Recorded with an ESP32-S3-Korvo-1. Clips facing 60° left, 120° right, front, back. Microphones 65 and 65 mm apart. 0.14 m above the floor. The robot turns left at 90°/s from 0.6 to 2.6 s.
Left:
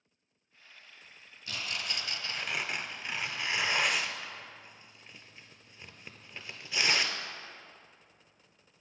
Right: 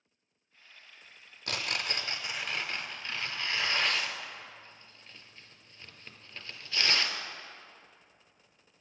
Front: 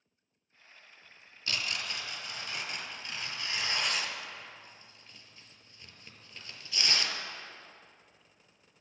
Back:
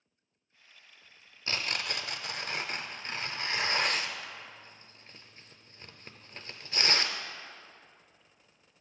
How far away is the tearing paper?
About 0.5 m.